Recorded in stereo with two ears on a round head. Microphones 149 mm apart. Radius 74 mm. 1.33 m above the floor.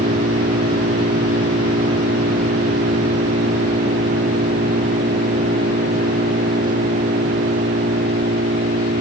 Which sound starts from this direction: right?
An engine running, at 0.0 s.